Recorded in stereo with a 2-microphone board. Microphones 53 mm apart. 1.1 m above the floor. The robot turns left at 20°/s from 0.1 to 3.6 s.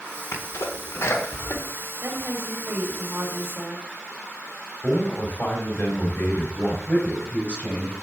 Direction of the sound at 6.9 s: 25° left (ahead or behind).